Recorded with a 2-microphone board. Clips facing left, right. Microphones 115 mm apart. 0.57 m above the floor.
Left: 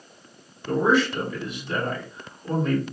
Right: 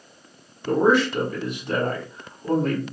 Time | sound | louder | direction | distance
0.7 | a man speaking | right 2 dB | 55° right (ahead or behind) | 2 m